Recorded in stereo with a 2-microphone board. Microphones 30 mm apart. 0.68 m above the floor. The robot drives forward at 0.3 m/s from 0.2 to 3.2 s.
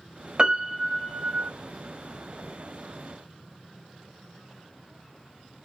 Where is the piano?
35° right (ahead or behind), 0.8 m; by 1.5 s 25° right (ahead or behind), 1.0 m.